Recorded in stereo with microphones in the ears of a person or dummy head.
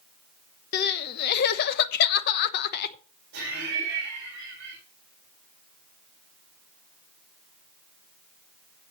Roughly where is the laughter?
Right.